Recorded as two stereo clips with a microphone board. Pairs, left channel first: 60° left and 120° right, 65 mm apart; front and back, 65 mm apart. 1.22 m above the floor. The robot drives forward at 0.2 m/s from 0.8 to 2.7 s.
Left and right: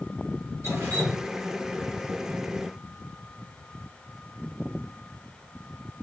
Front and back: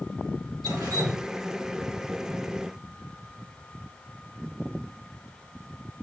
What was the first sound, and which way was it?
Dripping, 170° right.